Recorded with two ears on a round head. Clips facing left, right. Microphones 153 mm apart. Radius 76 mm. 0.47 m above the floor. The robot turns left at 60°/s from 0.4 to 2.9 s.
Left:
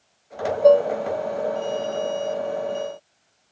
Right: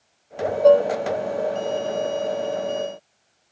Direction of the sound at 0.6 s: 5° left (ahead or behind).